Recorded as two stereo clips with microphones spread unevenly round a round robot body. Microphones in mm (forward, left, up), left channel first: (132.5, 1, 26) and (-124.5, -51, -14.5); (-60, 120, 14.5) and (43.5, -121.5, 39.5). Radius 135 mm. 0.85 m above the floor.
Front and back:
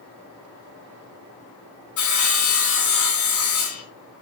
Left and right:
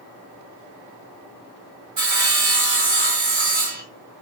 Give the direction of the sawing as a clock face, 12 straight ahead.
12 o'clock.